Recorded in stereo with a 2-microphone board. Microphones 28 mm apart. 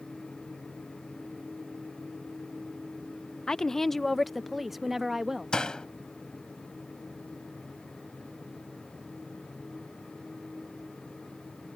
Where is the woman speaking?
30° left (ahead or behind); by 5.5 s 10° right (ahead or behind).